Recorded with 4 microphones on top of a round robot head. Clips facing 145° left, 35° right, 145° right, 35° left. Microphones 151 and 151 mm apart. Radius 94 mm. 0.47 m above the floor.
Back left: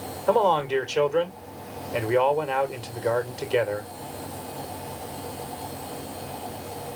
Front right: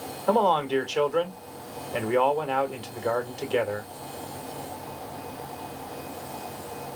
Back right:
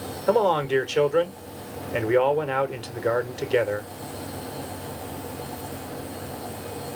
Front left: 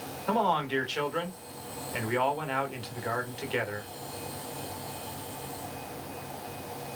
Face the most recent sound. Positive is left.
turn(degrees=-135)